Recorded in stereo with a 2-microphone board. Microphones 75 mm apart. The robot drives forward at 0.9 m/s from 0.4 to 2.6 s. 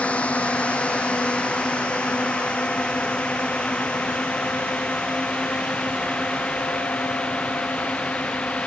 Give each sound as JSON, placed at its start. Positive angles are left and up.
{"t": 0.0, "sound": "a drone", "side_deg": 15}